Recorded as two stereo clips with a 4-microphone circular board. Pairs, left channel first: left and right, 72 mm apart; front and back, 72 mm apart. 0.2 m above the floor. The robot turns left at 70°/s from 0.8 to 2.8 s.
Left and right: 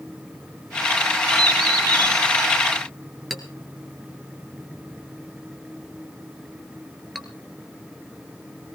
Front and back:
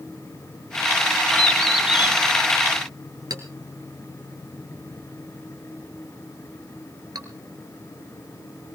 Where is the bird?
65° right, 4 m; by 2.2 s 120° right, 4 m.